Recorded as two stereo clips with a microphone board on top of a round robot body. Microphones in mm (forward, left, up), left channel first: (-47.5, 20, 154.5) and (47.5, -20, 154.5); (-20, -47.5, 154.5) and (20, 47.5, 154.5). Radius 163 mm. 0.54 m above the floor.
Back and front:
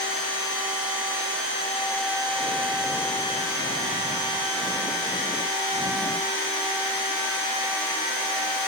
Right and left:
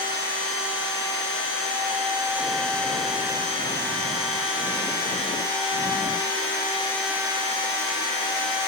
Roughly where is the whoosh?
I don't hear a whoosh.